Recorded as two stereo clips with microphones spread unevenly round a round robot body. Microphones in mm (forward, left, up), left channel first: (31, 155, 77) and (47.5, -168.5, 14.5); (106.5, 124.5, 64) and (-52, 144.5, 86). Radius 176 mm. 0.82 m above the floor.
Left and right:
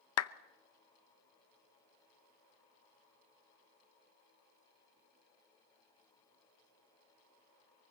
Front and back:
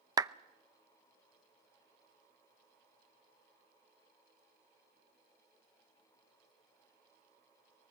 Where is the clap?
105° left, 0.8 m.